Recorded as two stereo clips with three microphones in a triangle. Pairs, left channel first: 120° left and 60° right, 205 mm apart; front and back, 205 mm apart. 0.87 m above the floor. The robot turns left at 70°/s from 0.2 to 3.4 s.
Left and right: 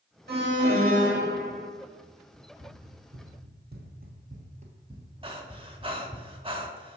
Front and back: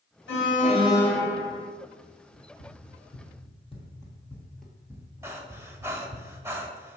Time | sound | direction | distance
0.3 | an alarm | 25° right | 1.0 m
2.3 | running footsteps | 35° left | 2 m
5.2 | breathing | 110° right | 0.7 m